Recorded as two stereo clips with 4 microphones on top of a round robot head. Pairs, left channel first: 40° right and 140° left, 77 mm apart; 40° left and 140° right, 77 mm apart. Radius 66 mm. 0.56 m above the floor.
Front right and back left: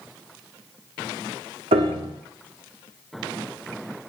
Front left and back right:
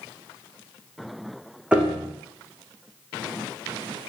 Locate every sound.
1.7 s a piano: 145° left, 6.5 m